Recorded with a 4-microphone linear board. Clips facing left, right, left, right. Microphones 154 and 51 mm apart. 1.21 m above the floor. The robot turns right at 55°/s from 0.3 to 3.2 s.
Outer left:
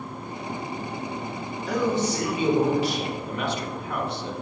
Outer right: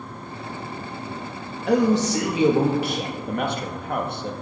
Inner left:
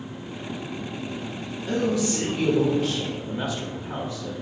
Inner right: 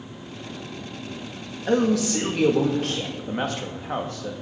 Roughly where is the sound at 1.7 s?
Behind right.